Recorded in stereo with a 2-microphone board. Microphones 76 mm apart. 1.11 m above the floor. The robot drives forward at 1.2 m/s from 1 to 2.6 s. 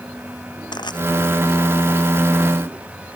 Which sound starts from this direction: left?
Crushing, at 0.7 s.